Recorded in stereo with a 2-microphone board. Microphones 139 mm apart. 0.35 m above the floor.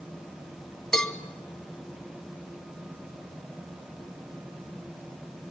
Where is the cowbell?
5° left (ahead or behind), 1.4 m.